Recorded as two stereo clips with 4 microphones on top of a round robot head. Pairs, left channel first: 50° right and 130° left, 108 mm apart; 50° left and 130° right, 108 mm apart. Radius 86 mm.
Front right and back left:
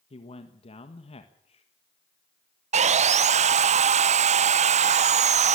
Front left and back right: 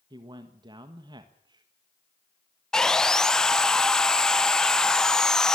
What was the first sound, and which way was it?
A man speaking, 80° right.